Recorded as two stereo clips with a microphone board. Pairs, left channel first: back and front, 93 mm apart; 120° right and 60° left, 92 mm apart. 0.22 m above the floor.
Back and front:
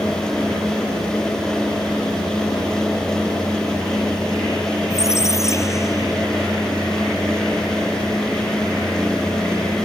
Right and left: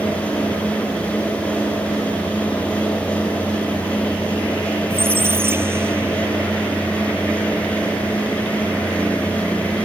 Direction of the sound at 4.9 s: 125° left.